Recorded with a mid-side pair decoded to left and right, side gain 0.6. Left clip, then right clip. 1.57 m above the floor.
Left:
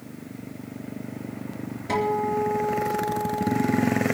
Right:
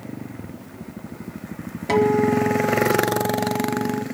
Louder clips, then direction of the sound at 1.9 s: Right 6 dB; 55° right.